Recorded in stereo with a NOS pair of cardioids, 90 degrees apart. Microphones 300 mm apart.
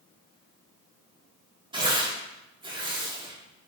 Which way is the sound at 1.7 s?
15° right.